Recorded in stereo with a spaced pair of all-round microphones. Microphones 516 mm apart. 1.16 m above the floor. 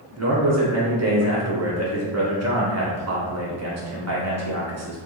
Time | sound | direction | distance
0.2 | a man speaking | 30° right (ahead or behind) | 0.7 m